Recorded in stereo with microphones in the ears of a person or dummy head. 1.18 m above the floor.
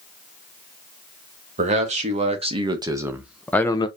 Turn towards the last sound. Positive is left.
turn(degrees=20)  # may be behind; listen again after turning